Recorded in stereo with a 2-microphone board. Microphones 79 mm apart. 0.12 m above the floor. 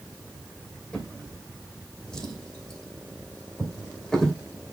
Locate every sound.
0.9 s a drawer: 10° left (ahead or behind), 2.5 m